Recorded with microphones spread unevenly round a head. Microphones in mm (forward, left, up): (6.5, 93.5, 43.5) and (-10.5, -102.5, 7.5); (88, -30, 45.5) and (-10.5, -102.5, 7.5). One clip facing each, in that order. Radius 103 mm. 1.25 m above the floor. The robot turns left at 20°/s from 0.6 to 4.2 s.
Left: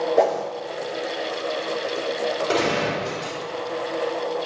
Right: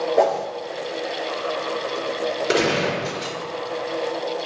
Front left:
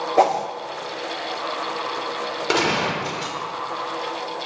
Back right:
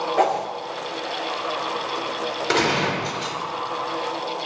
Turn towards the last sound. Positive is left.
turn(degrees=-65)